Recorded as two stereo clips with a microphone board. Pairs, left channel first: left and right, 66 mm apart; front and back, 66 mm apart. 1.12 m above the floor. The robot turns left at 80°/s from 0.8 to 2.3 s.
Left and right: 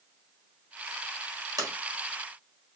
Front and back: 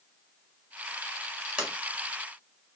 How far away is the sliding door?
About 1.3 m.